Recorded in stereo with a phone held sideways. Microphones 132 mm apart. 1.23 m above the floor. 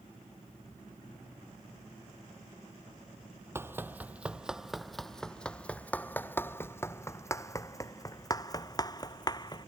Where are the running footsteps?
20° right (ahead or behind); by 9.7 s 30° left (ahead or behind).